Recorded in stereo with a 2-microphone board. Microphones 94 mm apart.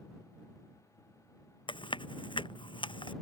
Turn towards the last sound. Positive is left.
turn(degrees=60)  # may be behind; listen again after turning